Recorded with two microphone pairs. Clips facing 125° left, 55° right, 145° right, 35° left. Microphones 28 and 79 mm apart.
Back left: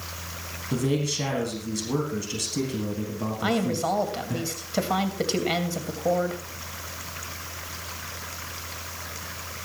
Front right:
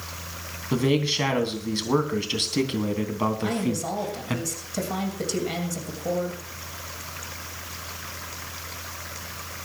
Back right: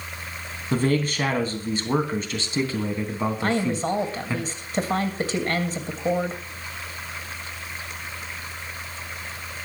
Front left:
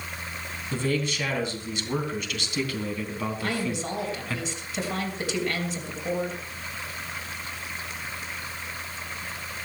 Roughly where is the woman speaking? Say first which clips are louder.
Back left 2 dB, back right 6 dB; behind.